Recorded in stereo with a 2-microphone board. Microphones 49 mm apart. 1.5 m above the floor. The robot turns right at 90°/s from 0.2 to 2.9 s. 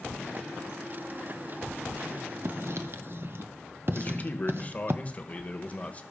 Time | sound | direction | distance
2.5 | writing | 60° right (ahead or behind) | 0.8 m
3.9 | a man speaking | 30° left (ahead or behind) | 1.4 m